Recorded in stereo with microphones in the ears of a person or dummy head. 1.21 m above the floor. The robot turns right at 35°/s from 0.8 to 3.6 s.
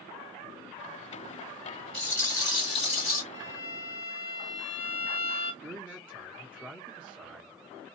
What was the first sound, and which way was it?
A rattle, 5° left.